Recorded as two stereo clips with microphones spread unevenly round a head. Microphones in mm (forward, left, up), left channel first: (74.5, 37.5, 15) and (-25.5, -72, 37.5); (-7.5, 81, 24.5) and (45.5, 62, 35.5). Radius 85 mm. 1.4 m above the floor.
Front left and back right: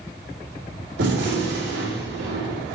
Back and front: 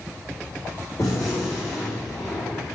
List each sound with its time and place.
1.0 s a gunshot: 135° right, 4.5 m